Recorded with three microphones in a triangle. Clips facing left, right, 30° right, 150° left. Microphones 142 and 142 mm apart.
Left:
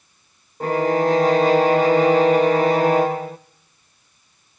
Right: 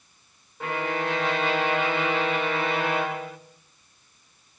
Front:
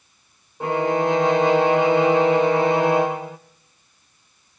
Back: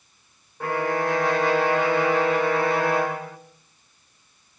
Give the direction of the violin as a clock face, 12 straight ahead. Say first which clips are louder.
Left 10 dB, front 4 dB; 11 o'clock.